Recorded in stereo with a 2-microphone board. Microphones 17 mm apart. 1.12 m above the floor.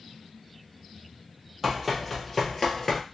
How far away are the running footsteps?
About 1.7 m.